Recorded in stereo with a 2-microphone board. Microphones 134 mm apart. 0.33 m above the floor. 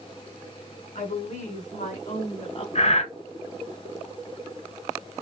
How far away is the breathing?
About 1.0 m.